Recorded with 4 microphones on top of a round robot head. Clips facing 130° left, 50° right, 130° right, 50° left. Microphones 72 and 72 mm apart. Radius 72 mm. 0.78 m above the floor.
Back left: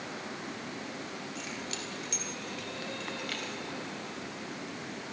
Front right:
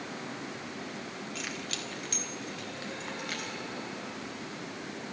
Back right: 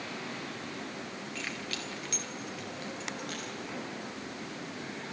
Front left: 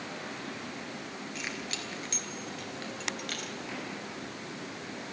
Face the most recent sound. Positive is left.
turn(degrees=20)